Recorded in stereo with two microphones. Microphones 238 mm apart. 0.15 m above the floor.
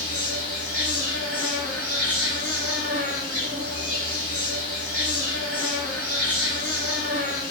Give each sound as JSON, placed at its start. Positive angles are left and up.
{"t": 0.0, "sound": "an insect", "side_deg": -70, "distance_m": 1.0}